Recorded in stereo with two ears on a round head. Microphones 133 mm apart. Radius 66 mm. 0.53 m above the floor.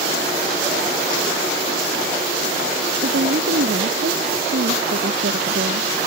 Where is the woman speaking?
75° right (ahead or behind).